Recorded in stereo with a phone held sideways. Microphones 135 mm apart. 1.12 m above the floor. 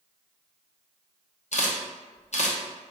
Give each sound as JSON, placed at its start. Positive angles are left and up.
{"t": 1.5, "sound": "a camera shutter", "side_deg": 60, "distance_m": 0.6}